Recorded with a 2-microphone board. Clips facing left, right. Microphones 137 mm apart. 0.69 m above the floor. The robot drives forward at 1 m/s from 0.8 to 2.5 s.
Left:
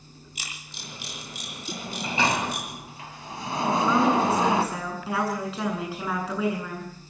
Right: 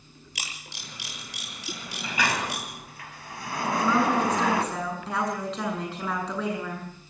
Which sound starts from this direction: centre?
A woman speaking, at 3.6 s.